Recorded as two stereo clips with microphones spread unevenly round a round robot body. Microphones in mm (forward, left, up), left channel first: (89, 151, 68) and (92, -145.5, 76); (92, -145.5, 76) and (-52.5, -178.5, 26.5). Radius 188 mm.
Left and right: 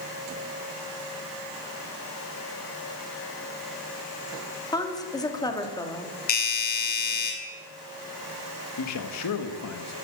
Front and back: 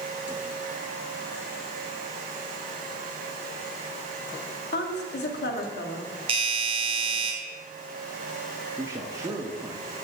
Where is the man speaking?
125° left, 1.2 m.